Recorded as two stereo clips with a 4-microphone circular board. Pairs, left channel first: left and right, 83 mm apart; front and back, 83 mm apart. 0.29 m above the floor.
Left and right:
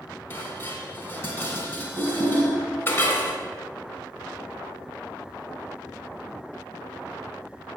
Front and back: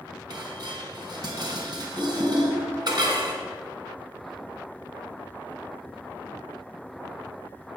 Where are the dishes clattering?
150° left, 2.0 m.